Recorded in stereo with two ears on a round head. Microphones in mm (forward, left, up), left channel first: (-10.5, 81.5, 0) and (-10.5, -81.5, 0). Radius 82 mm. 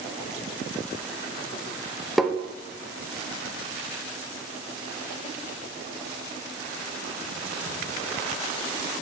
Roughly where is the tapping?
Centre.